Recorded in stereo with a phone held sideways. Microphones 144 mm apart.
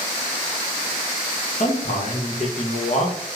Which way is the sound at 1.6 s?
55° left (ahead or behind).